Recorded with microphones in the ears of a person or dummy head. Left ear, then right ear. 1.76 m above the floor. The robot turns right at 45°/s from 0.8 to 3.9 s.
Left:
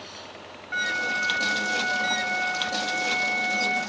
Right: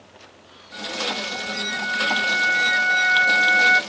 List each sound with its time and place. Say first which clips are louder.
0.7 s a flute: left 1 dB; 130° left, 0.8 m; by 3.8 s 95° right, 0.8 m